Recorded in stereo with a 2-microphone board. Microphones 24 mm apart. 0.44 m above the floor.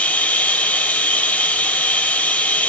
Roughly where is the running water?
Left.